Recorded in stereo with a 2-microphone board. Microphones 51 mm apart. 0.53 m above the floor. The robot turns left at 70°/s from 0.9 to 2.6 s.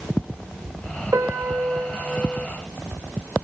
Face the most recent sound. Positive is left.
turn(degrees=160)